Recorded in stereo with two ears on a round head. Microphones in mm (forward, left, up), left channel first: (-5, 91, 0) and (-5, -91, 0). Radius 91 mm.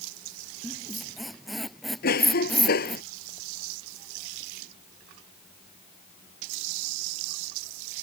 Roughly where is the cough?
Left.